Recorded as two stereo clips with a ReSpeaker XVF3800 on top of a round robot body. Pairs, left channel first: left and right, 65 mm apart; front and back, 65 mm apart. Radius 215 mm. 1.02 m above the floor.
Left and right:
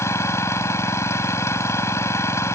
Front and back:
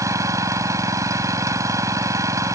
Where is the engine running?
140° left.